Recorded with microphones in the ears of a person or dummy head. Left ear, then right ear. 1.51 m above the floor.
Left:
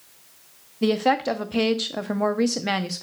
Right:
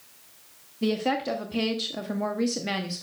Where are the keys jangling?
I don't hear keys jangling.